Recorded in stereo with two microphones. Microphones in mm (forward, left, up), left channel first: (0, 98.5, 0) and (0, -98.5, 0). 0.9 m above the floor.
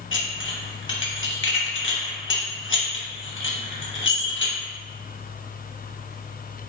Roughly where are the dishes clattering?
Left.